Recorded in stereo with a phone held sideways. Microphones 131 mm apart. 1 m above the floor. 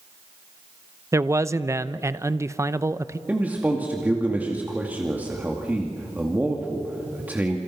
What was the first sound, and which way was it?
A man speaking, 25° right (ahead or behind).